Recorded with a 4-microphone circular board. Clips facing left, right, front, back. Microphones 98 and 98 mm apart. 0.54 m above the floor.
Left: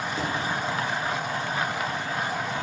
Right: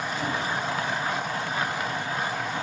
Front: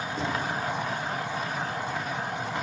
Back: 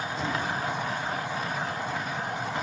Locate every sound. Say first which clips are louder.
0.2 s knocking: even, front 1 dB; 40° left, 9 m